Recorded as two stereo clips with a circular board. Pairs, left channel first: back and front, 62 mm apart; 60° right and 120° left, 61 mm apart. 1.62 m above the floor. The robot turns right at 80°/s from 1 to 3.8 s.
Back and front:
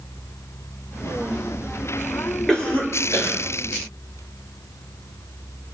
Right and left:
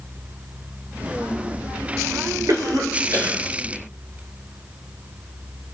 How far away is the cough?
About 5.5 m.